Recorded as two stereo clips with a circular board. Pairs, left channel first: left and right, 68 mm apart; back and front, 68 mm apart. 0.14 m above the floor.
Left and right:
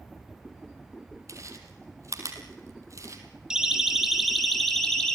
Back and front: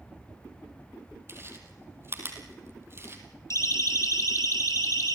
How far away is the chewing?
About 3.5 m.